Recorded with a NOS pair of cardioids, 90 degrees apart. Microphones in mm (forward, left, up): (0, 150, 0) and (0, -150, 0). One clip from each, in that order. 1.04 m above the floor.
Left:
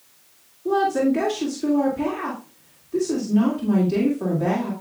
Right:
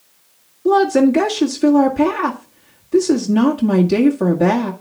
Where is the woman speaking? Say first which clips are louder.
Right 7 dB; 60° right, 2.0 m.